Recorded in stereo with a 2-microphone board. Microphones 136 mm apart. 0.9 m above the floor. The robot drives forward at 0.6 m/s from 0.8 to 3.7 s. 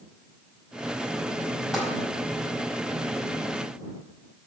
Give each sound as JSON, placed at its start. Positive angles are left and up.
{"t": 1.7, "sound": "tapping", "side_deg": -5, "distance_m": 4.5}